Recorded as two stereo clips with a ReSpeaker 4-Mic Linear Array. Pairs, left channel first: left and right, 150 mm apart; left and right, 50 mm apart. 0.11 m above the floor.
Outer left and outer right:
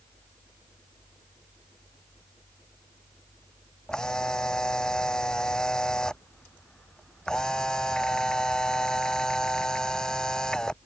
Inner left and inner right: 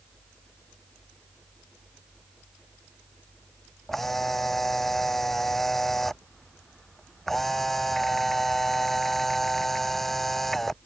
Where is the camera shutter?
5° left (ahead or behind).